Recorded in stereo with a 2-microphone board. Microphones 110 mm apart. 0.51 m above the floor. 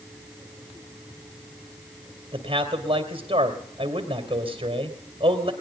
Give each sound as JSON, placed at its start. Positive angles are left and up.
{"t": 2.3, "sound": "a man speaking", "side_deg": -55, "distance_m": 2.0}